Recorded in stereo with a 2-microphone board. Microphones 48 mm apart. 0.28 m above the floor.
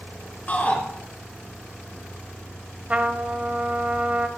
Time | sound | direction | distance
0.5 | a shout | 30° left (ahead or behind) | 4 m
2.9 | a trumpet | 25° right (ahead or behind) | 1.2 m